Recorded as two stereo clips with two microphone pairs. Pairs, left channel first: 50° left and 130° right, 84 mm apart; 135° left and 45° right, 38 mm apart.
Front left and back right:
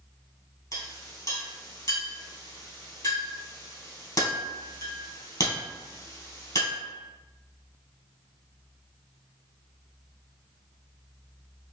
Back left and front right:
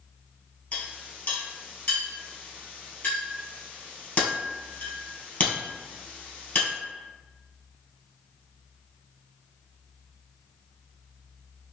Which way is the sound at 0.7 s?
85° left.